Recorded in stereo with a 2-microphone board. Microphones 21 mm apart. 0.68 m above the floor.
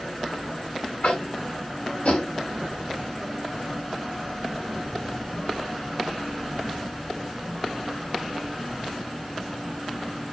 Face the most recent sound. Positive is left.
turn(degrees=65)  # may be behind; listen again after turning